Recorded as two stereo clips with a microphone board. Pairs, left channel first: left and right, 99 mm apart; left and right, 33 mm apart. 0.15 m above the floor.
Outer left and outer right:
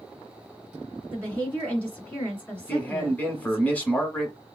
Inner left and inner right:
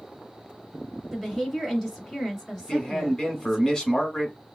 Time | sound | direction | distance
1.1 | a woman speaking | 15° left (ahead or behind) | 1.7 m
2.6 | a man speaking | 15° left (ahead or behind) | 1.1 m